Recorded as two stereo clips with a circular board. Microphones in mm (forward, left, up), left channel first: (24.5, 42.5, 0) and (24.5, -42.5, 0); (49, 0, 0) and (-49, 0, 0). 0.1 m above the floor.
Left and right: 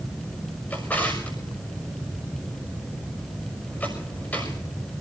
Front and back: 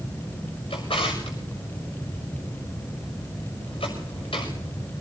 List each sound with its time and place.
0.7 s a drawer: 20° left, 6.5 m